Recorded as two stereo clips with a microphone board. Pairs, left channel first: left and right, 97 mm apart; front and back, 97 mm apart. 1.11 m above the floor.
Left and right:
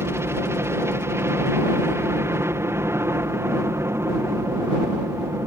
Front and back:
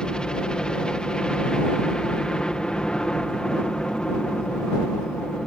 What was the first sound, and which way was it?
A helicopter, 70° right.